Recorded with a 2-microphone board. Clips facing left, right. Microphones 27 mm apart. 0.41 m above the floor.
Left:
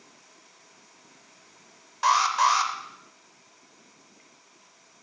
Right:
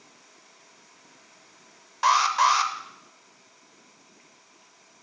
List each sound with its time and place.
2.0 s an alarm: 10° right (ahead or behind), 0.7 m